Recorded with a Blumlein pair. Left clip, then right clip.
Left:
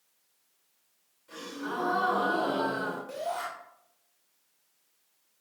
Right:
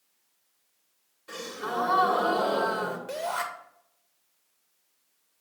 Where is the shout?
35° right, 2 m.